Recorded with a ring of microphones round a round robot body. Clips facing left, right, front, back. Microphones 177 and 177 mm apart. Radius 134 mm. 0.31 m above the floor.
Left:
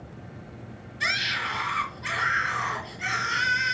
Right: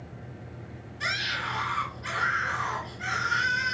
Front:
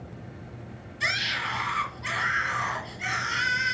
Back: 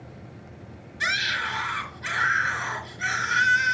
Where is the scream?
175° left, 4.5 m.